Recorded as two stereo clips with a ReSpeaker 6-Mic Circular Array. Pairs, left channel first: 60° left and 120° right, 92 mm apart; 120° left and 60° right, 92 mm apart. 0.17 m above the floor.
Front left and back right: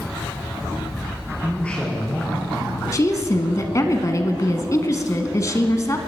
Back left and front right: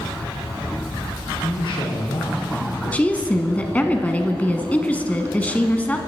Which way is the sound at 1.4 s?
140° left.